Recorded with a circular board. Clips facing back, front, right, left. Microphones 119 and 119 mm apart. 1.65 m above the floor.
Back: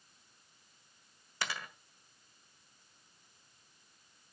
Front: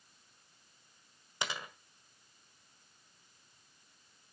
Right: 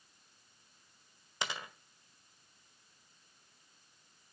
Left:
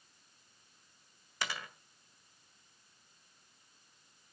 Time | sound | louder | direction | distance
1.4 | a dropped coin | front 1 dB, even | 50° right | 1.5 m